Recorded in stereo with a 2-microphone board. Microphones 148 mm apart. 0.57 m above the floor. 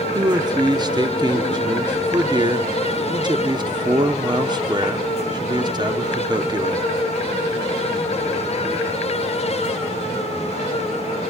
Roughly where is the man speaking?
Right.